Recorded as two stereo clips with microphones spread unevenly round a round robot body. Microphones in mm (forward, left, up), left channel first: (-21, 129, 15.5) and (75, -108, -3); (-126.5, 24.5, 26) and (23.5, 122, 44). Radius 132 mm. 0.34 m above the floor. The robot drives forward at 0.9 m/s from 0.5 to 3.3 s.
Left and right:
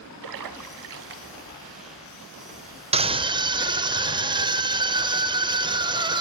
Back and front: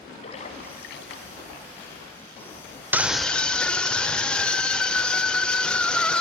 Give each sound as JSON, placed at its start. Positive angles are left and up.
{"t": 0.2, "sound": "a splash", "azimuth_deg": -85, "distance_m": 0.9}
{"t": 2.9, "sound": "a scream", "azimuth_deg": -45, "distance_m": 1.2}